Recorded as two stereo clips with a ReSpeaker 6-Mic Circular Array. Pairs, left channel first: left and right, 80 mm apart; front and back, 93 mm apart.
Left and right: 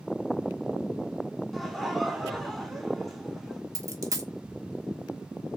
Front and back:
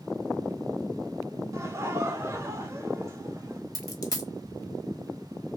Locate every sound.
1.5 s laughter: 175° left, 1.2 m
3.8 s a dropped coin: 45° right, 0.9 m